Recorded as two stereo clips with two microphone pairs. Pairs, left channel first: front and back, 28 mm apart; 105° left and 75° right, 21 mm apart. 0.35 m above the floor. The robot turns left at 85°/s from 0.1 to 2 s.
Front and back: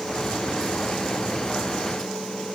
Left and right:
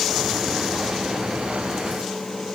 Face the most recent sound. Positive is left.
No sound to turn to.